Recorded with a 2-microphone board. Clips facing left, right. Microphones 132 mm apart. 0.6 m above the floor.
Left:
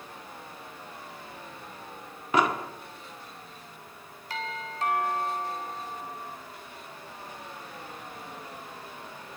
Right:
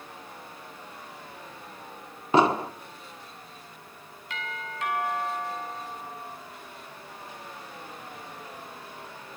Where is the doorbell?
35° left (ahead or behind), 7 m.